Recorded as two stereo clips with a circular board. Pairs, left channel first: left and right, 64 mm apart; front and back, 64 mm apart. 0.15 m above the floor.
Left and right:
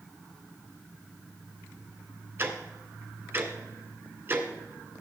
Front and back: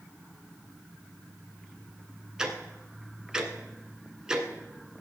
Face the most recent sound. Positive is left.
turn(degrees=-110)